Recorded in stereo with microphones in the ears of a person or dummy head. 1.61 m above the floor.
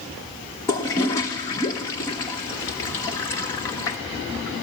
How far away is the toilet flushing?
About 0.9 m.